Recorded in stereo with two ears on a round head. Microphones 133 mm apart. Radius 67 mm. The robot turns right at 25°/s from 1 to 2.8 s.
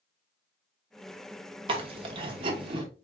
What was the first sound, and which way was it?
Chewing, 35° right (ahead or behind).